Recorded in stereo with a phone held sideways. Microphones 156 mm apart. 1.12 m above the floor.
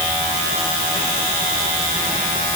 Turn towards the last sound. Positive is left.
No sound to turn to.